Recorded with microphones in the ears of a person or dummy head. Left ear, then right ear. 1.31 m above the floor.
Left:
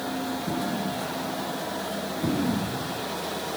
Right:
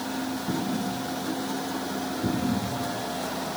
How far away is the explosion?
About 2 m.